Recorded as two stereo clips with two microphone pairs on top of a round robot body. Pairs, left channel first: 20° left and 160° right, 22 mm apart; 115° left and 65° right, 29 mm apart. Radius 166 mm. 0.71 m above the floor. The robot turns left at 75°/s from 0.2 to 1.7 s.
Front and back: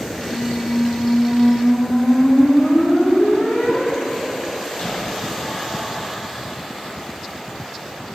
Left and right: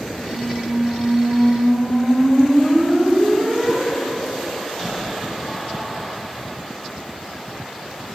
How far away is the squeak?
About 4 m.